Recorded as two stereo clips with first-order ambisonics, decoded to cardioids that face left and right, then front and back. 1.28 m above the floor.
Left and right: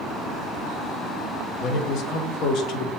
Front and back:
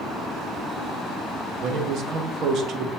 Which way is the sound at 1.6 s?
130° left.